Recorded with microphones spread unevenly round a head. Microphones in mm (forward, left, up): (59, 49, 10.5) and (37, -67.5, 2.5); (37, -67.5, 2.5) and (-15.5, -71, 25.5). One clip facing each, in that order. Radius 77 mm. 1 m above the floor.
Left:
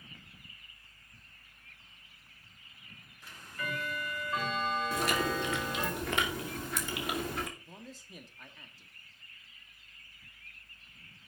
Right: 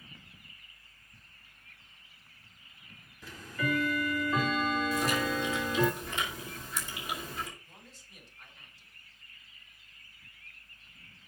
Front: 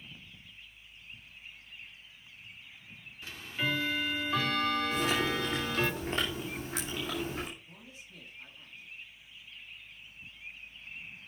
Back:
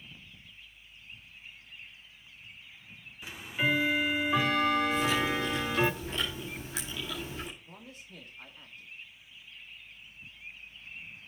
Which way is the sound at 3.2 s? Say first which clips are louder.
Right 7 dB, back 4 dB; 115° right.